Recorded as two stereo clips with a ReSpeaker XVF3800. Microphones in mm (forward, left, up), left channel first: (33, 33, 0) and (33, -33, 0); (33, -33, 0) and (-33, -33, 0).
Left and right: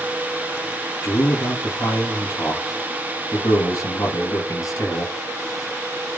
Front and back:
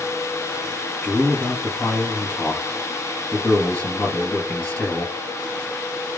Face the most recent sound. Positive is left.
turn(degrees=70)